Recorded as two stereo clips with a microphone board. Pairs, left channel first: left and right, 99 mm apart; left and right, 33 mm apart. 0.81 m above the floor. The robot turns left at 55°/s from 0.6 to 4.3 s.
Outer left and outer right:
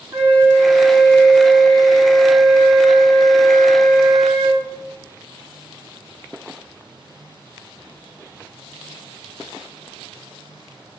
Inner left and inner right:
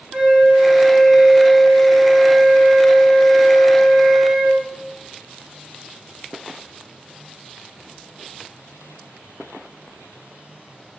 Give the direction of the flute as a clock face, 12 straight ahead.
5 o'clock.